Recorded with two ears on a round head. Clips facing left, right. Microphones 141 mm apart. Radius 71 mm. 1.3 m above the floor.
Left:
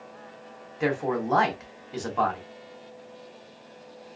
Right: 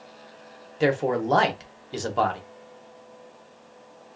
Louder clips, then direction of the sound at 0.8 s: Right 4 dB; 35° right (ahead or behind).